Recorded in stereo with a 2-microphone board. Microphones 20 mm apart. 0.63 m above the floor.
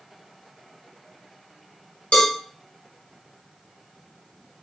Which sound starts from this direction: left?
A cowbell, at 2.1 s.